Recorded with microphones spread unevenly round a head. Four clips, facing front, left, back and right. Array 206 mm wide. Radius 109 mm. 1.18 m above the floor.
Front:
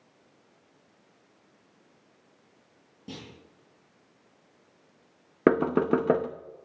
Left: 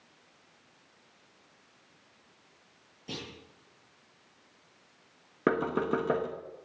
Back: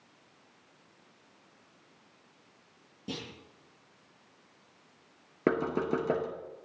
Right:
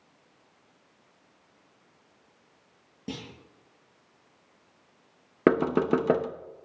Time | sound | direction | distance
3.1 | a clunk | 110° right | 8.5 m
5.5 | knocking | 30° right | 0.9 m